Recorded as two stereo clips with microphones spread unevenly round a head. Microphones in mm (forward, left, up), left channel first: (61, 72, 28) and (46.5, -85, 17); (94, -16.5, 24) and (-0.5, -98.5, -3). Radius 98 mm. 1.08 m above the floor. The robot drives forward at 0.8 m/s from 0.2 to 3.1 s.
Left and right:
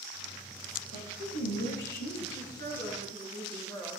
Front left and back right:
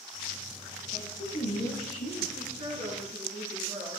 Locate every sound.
0.9 s a woman speaking: 80° left, 5.5 m; by 2.2 s 90° left, 5.5 m
2.3 s a woman speaking: 155° left, 5 m; by 4.0 s 160° left, 5.5 m